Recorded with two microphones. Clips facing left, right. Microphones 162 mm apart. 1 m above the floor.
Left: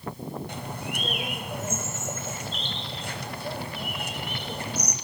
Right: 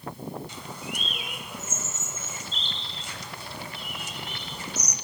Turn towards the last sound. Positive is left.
turn(degrees=60)  # may be behind; listen again after turning